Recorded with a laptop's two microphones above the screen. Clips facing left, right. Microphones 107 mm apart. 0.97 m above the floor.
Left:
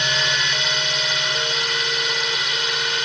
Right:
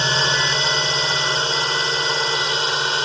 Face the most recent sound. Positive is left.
turn(degrees=-30)  # may be behind; listen again after turning